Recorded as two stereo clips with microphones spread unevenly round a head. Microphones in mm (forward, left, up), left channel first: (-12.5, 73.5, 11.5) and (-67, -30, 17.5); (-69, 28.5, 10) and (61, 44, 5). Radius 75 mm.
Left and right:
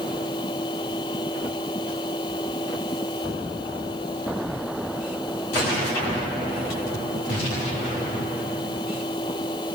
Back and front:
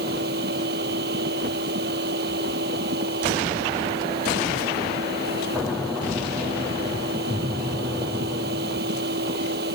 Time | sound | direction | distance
0.0 | a machine running | straight ahead | ?